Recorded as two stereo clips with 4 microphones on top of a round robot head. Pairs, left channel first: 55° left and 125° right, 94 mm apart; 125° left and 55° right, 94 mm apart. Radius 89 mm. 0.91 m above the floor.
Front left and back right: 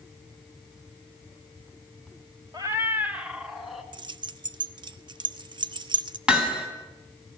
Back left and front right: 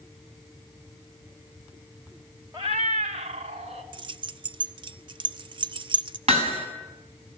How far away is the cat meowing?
About 0.7 m.